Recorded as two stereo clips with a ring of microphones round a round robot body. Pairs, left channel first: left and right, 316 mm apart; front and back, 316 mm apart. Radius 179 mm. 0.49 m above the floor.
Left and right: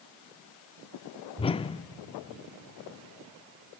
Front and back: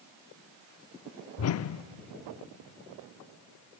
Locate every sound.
1.4 s a whoosh: 20° left, 0.6 m